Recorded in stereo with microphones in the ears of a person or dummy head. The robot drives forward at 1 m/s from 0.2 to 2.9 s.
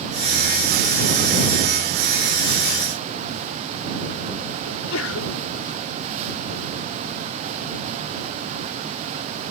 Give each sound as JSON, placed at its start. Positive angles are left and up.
{"t": 4.7, "sound": "a sneeze", "side_deg": 85}